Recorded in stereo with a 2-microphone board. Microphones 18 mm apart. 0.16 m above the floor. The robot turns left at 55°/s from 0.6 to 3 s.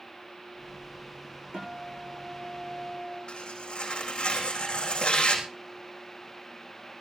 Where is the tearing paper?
70° left (ahead or behind), 4 m.